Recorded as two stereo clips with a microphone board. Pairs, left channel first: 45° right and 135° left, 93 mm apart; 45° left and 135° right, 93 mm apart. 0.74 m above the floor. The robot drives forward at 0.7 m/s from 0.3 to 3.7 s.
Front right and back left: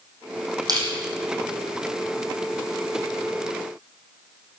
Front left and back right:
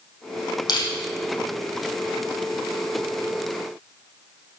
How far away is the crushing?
About 5.5 m.